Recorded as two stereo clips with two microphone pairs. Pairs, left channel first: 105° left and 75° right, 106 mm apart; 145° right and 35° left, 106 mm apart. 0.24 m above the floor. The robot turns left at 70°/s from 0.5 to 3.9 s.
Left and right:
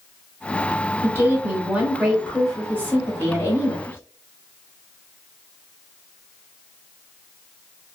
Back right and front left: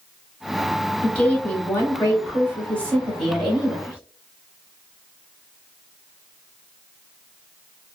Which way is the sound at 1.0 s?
75° right.